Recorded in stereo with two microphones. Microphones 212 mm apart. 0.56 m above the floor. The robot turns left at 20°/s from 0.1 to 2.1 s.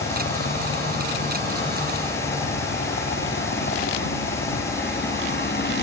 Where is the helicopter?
60° left (ahead or behind); by 5.8 s 55° left (ahead or behind).